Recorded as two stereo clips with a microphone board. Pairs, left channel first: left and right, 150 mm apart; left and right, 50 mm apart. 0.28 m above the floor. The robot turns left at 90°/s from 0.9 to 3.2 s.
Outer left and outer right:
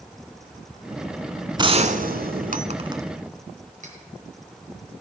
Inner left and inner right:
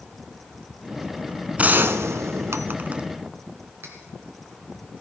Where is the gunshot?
30° right, 0.8 m; by 3.0 s 160° right, 0.8 m.